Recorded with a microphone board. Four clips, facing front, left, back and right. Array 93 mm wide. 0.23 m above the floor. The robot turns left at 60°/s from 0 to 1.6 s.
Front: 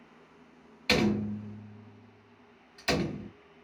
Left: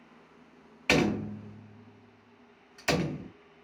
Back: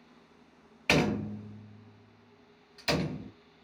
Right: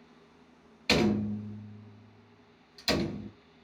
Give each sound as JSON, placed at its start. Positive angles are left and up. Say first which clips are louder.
{"t": 0.9, "sound": "a door slam", "louder": "even, front 1 dB", "azimuth_deg": 130, "distance_m": 0.8}